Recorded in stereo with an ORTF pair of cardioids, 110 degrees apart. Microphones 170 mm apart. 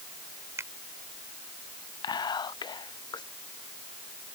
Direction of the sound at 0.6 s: 15° right.